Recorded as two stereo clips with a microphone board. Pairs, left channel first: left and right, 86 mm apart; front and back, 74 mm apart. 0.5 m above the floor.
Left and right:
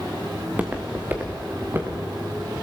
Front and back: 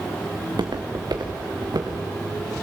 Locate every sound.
0.4 s footsteps: 160° right, 2 m; by 2.5 s 145° right, 3.5 m